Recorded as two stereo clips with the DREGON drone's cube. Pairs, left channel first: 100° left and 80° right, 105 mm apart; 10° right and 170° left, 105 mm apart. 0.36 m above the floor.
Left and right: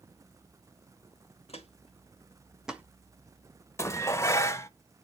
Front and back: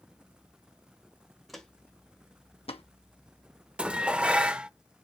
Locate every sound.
1.5 s footsteps: 80° left, 1.5 m; by 2.8 s 5° right, 1.2 m
3.8 s dishes clattering: 100° left, 0.5 m